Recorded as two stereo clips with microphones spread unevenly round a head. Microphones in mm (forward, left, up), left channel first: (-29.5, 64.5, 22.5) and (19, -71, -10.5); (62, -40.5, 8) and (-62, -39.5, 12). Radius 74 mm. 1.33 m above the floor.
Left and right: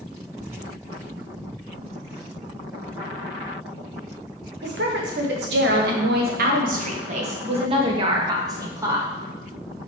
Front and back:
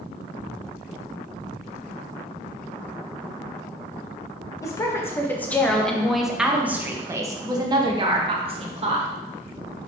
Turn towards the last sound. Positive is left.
turn(degrees=-145)